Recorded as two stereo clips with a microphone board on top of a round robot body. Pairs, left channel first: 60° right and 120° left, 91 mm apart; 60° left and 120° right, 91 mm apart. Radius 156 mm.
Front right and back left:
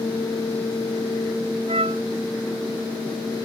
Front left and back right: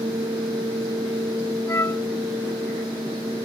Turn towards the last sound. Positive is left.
turn(degrees=125)